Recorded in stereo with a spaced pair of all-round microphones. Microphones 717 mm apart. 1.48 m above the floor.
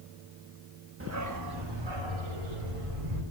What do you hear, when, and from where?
1.0 s a dog barking: 20° right (ahead or behind), 1.0 m; by 3.2 s 50° right (ahead or behind), 2.5 m